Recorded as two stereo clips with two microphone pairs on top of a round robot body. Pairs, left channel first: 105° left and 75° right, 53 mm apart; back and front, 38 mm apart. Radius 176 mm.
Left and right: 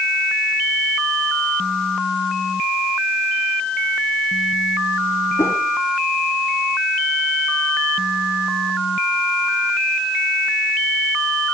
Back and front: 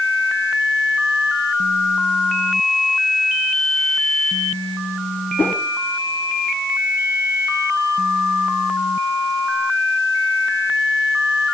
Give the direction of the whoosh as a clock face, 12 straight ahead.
7 o'clock.